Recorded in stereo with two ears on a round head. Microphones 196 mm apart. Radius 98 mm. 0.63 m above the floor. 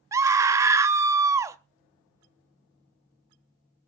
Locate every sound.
0.1 s a scream: 15° right (ahead or behind), 0.6 m